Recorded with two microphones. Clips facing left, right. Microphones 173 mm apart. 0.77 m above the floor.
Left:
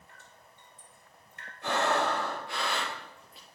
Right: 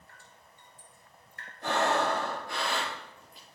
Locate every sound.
0.1 s dripping: 20° left (ahead or behind), 2 m
1.6 s breathing: 40° right (ahead or behind), 5.5 m